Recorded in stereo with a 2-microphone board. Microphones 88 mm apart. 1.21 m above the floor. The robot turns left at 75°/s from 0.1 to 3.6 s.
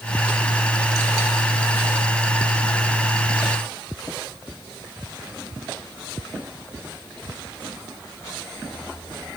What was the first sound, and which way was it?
Only background noise.